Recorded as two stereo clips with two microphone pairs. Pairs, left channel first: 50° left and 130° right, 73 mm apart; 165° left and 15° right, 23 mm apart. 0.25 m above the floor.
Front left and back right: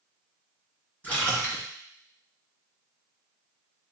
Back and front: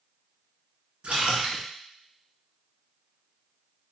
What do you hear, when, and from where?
1.0 s a splash: 20° right, 1.9 m